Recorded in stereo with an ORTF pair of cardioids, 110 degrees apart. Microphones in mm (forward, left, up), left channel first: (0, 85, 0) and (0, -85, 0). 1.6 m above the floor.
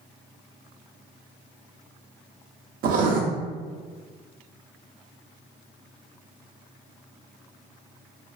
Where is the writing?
60° right, 0.5 m.